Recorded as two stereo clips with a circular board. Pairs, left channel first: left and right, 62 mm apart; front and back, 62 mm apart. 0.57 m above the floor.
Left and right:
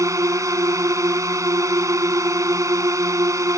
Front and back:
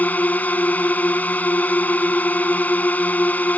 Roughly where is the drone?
Ahead right.